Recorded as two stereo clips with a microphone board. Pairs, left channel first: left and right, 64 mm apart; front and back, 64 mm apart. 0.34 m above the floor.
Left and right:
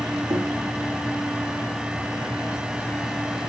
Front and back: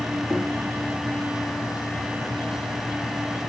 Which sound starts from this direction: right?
Knocking, at 0.3 s.